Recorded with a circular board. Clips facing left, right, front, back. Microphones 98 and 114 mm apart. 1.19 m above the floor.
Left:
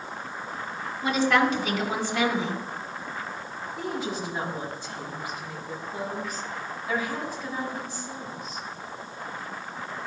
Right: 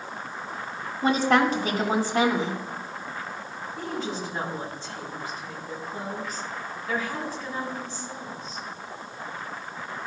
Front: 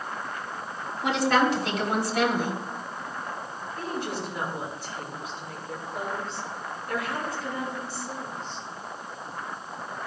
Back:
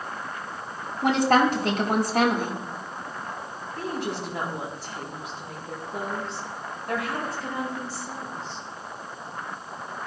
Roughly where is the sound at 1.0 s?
Behind right.